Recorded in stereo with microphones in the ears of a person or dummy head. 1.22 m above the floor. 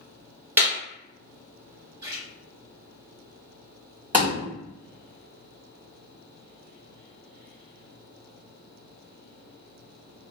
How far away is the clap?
About 1.2 m.